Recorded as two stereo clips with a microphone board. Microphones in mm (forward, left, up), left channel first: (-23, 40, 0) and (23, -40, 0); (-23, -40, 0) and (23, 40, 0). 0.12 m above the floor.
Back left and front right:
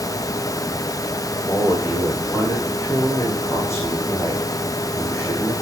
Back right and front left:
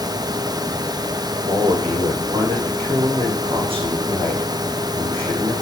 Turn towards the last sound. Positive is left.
turn(degrees=60)